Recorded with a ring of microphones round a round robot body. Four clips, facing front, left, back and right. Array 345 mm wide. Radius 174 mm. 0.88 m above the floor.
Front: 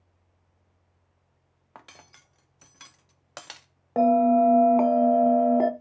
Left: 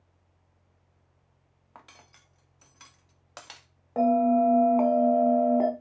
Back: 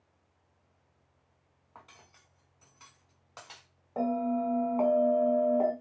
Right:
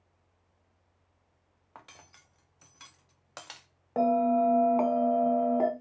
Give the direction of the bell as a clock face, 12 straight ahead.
12 o'clock.